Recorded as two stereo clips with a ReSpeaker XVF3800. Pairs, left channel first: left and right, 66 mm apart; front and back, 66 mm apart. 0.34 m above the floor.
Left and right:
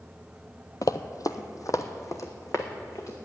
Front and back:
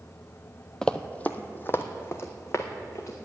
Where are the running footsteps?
80° left, 0.5 m; by 3.1 s 45° left, 1.7 m.